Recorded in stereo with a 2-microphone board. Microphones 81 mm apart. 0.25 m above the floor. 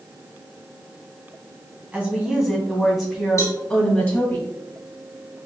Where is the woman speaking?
15° right (ahead or behind), 1.8 m; by 4.4 s 20° left (ahead or behind), 1.2 m.